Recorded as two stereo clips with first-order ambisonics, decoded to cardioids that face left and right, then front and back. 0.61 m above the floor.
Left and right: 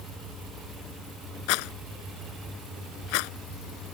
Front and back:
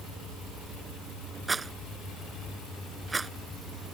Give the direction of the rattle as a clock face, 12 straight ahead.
9 o'clock.